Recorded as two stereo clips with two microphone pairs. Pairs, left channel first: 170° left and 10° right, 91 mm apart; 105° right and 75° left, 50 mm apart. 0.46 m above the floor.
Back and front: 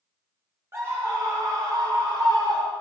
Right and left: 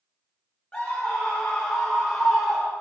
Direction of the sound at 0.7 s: 50° right.